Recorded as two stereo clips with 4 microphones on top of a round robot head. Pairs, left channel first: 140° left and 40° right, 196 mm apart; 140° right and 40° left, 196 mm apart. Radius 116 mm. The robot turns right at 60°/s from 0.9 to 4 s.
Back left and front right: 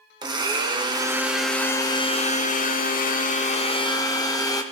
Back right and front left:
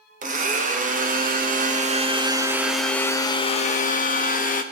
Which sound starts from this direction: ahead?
A blender, at 0.2 s.